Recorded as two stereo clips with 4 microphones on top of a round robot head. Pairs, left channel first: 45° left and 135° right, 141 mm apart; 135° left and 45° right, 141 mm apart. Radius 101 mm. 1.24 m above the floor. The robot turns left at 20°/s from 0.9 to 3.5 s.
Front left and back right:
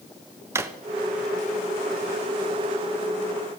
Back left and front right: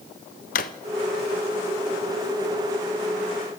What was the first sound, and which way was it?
A drawer, 155° left.